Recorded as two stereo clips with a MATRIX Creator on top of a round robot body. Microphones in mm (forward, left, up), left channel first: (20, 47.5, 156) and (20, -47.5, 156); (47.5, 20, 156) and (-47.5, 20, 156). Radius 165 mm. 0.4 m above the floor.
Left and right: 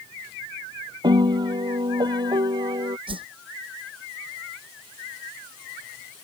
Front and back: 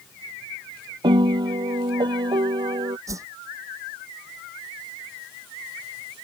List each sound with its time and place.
1.0 s a piano: 135° right
3.1 s a whoosh: 120° right